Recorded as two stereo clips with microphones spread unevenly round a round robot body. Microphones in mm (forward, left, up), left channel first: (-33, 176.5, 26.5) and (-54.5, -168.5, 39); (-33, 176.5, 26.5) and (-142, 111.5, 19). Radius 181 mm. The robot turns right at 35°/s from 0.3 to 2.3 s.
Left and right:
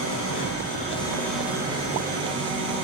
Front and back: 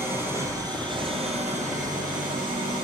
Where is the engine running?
140° left, 7.5 m; by 2.8 s 150° right, 7.5 m.